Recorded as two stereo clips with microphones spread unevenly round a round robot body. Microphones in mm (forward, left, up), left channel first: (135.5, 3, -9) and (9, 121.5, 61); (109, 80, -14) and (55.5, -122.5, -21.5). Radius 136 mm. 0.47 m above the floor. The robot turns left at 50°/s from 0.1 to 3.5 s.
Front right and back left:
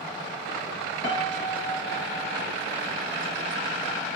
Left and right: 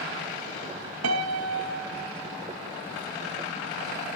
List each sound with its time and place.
1.0 s a piano: 120° right, 1.9 m; by 2.4 s 175° left, 1.9 m